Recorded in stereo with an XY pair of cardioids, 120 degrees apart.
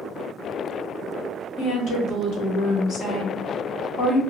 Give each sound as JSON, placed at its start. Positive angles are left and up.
{"t": 1.6, "sound": "a woman speaking", "azimuth_deg": 65, "distance_m": 1.3}